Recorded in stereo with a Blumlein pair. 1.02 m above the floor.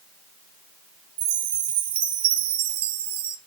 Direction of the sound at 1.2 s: 55° right.